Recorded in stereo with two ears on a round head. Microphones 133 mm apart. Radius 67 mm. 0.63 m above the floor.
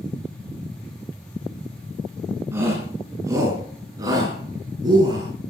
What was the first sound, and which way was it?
A shout, 15° right (ahead or behind).